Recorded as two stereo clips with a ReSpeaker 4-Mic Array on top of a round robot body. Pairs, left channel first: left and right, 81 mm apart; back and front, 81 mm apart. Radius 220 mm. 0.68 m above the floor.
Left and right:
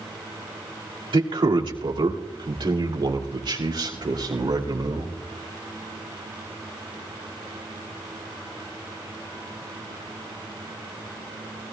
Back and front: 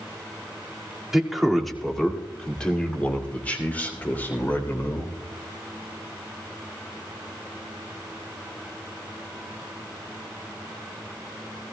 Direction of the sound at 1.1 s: 85° right.